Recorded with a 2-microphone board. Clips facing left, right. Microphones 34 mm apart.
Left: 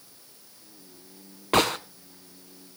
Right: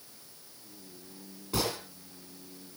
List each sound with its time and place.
1.5 s a gunshot: 60° left (ahead or behind), 1.0 m